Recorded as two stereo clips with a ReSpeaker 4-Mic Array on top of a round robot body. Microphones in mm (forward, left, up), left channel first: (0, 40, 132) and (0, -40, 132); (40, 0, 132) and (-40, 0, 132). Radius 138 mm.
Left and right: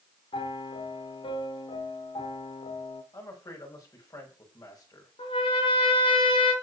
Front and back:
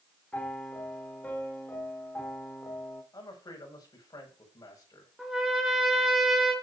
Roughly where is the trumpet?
Left.